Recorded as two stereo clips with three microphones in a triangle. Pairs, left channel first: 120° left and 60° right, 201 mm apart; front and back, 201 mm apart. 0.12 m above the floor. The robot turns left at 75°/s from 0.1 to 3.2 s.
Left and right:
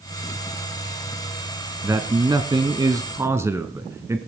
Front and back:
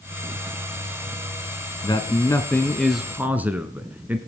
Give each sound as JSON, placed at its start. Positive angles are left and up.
{"t": 1.8, "sound": "a man speaking", "azimuth_deg": -10, "distance_m": 1.1}